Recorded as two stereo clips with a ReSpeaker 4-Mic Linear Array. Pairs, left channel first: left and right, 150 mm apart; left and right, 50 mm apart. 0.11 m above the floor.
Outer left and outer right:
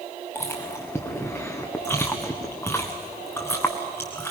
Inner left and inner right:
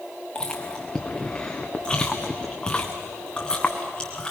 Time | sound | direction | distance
0.3 | chewing | 15° left (ahead or behind) | 2.5 m